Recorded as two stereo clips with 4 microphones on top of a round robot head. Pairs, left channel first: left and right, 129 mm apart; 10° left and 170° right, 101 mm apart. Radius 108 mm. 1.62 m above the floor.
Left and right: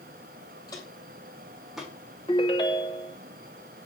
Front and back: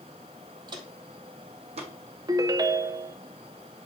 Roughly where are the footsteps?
Behind left.